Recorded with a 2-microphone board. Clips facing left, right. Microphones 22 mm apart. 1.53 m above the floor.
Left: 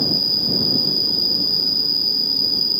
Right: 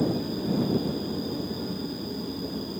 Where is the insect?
70° left (ahead or behind).